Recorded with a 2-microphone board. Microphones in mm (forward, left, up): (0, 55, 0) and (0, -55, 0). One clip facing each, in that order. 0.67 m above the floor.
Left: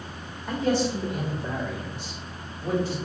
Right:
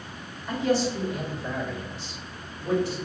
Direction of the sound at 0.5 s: 55° left (ahead or behind).